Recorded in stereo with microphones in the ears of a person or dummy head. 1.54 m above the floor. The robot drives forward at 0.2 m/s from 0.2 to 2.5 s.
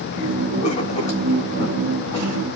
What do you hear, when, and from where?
0.6 s writing: 30° left (ahead or behind), 1.1 m; by 2.5 s 25° left (ahead or behind), 1.5 m